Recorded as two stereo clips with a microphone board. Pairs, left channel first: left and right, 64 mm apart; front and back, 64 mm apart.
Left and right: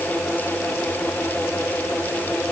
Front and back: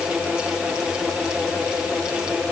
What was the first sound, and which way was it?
Only background noise.